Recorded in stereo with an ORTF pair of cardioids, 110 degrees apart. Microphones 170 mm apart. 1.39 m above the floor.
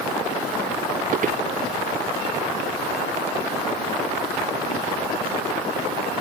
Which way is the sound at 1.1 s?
50° right.